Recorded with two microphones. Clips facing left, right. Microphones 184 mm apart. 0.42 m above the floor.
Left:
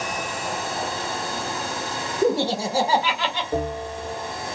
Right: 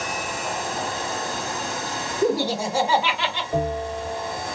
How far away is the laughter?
About 1.0 m.